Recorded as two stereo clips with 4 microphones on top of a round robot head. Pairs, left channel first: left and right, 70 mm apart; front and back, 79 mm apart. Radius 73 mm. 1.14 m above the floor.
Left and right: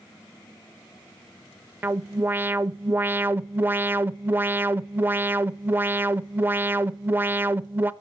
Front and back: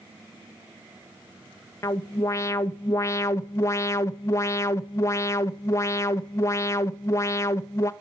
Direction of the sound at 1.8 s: 35° right.